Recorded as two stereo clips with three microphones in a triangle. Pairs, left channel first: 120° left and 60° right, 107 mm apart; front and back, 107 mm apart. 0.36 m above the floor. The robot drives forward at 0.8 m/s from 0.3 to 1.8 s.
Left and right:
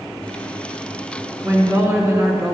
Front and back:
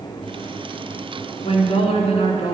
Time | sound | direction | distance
1.4 | a woman speaking | 5° left | 3.5 m